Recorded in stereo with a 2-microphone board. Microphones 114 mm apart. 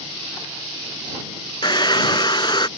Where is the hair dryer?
40° left (ahead or behind).